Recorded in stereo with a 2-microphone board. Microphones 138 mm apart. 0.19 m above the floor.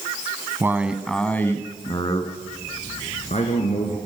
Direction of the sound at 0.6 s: 20° right (ahead or behind).